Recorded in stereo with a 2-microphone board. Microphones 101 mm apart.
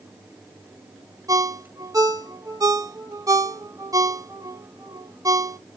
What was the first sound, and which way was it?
A ringtone, 35° right (ahead or behind).